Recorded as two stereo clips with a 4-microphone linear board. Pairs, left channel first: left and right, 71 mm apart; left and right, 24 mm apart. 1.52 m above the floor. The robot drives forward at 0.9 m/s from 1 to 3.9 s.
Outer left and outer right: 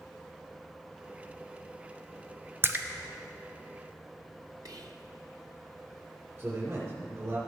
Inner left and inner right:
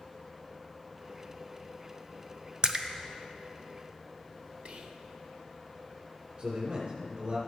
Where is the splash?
35° right (ahead or behind), 0.7 m; by 2.9 s 25° right (ahead or behind), 0.8 m.